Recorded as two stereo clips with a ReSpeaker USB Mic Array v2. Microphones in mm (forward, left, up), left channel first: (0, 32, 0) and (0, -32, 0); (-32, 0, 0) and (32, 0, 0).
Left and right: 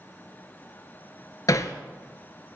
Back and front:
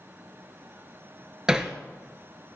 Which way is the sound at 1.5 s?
75° left.